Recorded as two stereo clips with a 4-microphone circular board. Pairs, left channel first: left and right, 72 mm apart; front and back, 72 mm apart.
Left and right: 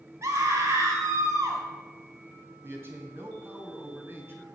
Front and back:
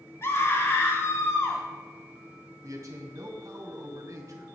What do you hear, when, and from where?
0.2 s a scream: 50° right, 4 m
2.6 s a man speaking: 145° right, 2.5 m